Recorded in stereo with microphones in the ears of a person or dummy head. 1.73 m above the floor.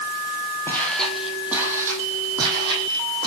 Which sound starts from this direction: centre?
Footsteps, at 0.7 s.